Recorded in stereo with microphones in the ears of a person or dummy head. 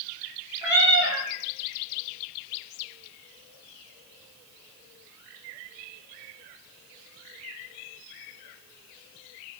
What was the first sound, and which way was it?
A cat meowing, 5° right (ahead or behind).